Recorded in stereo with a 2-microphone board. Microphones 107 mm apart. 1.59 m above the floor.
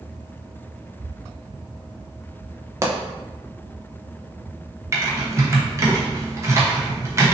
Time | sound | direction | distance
2.8 | a pop | 25° right (ahead or behind) | 0.7 m
4.9 | typing on a keyboard | 25° right (ahead or behind) | 1.0 m